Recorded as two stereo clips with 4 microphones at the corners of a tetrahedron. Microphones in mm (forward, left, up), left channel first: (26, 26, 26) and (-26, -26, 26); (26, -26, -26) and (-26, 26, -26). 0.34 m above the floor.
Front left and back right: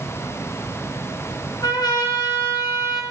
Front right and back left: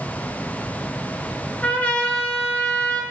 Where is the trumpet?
25° left, 2.5 m.